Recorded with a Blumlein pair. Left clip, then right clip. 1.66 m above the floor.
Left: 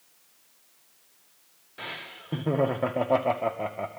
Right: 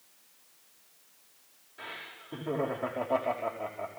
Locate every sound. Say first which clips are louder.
1.8 s laughter: left 5 dB; 30° left, 2 m